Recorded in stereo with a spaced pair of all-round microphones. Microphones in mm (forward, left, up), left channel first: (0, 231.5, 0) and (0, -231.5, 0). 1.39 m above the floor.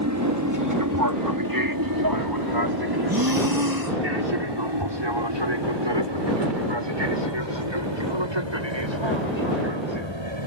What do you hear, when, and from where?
0.0 s an aircraft: 35° right (ahead or behind); by 10.5 s 70° right (ahead or behind)
3.1 s breathing: 50° right (ahead or behind)